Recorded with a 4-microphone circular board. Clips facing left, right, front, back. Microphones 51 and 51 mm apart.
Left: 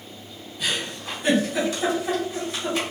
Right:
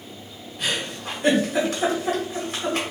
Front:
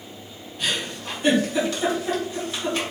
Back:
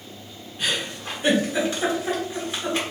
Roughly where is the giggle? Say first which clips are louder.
Right 1 dB, even; behind right.